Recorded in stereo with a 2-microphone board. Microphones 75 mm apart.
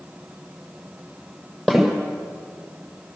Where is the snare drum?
10° left (ahead or behind), 7 m.